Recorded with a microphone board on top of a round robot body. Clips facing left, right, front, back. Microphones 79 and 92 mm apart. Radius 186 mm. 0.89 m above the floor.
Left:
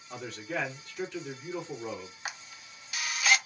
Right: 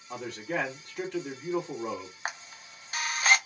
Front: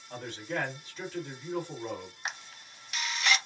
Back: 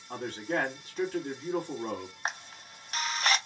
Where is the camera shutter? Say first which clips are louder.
Right 4 dB, back 5 dB; 135° right, 0.8 m.